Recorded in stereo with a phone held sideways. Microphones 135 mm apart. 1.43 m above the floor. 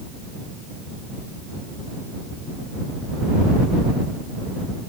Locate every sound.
Only background noise.